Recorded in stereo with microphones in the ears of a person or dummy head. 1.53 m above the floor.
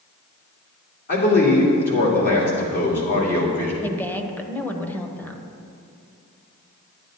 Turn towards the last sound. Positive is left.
turn(degrees=5)  # may be behind; listen again after turning